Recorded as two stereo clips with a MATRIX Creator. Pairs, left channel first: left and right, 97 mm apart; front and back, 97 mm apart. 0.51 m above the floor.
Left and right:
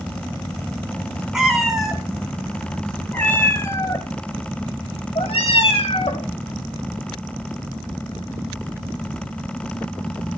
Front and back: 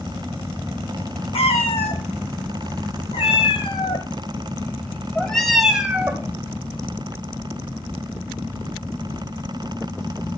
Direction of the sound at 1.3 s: 5° right.